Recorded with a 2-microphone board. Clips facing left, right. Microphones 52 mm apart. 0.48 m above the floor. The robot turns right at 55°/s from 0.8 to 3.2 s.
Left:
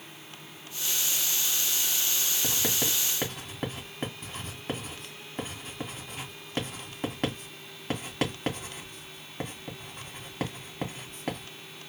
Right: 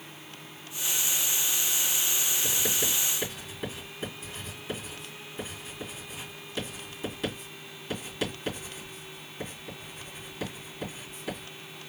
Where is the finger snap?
No finger snap in this recording.